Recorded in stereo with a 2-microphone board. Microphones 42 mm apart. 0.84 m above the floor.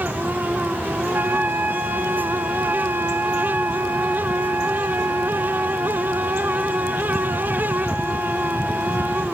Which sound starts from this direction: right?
A trumpet, at 1.1 s.